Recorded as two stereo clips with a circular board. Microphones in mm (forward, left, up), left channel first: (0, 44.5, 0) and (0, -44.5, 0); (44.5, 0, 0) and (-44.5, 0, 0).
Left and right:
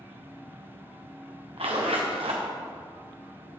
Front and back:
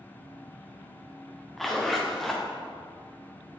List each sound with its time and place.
1.6 s a zipper: 90° right, 2 m